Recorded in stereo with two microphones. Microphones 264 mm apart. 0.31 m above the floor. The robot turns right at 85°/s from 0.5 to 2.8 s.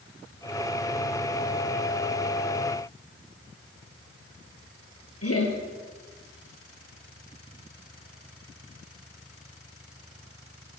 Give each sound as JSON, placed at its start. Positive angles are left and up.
{"t": 5.2, "sound": "laughter", "side_deg": 60, "distance_m": 7.5}